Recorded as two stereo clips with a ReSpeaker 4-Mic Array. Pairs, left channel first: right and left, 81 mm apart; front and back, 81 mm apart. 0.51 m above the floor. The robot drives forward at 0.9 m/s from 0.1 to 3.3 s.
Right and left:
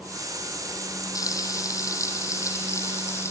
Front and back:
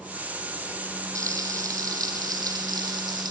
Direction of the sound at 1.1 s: 130° right.